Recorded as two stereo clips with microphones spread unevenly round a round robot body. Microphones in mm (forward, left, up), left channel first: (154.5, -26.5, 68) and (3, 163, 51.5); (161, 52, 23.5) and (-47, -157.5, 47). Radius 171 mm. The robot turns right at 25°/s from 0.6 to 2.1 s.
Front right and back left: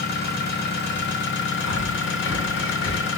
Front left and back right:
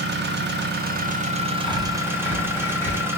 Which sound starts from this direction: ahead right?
Breathing, at 1.6 s.